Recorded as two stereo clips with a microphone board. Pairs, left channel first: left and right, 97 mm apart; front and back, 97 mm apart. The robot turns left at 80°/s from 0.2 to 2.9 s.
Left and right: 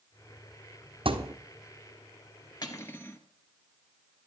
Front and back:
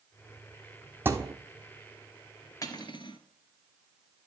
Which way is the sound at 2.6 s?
45° left.